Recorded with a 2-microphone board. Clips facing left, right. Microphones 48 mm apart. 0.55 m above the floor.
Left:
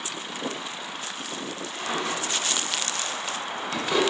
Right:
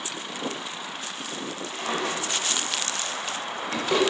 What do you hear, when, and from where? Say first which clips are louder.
1.7 s a drawer: right 1 dB; 70° right (ahead or behind), 1.1 m